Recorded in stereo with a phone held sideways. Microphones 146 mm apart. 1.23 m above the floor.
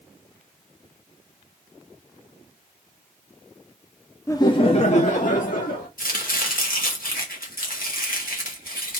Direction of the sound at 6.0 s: 70° left (ahead or behind).